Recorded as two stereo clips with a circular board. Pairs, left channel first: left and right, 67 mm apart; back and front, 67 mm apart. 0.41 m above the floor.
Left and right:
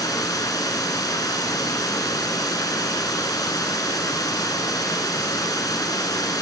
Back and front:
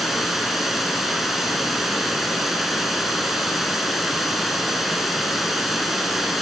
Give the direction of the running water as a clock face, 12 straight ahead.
9 o'clock.